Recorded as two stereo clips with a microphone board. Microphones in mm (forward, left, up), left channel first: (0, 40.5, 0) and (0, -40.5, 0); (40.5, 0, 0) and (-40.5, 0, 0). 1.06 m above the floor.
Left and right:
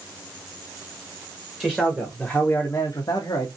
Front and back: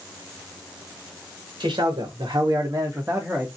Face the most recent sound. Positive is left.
turn(degrees=90)